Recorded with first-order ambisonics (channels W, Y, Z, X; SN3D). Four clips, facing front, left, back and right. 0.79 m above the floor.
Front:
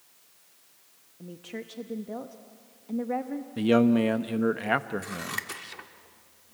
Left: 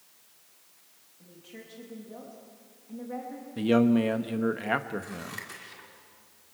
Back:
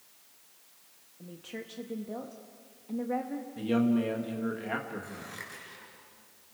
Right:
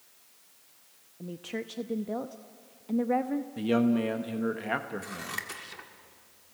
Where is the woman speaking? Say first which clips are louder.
Right 11 dB, front 3 dB; 75° right, 0.8 m.